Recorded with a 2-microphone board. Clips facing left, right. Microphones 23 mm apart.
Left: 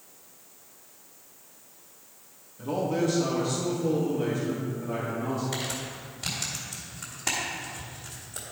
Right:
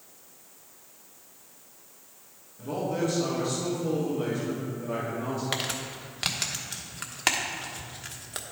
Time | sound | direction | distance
2.6 | a man speaking | 20° left (ahead or behind) | 1.9 m
5.5 | crumpling | 80° right | 1.1 m